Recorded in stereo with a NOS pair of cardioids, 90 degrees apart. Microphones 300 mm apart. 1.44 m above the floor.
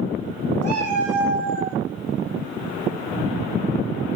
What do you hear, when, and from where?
0.6 s a cat meowing: 60° right, 8 m; by 1.8 s 50° right, 7 m